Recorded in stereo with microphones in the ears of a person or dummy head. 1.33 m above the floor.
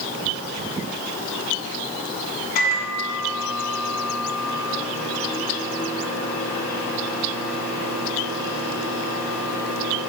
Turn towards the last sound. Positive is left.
turn(degrees=60)  # may be behind; listen again after turning